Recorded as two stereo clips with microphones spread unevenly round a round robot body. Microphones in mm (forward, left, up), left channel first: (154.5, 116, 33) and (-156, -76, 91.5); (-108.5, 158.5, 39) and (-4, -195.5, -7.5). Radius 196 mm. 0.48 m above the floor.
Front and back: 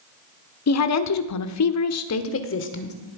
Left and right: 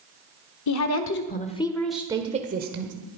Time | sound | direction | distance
0.7 | a woman speaking | 60° left | 1.2 m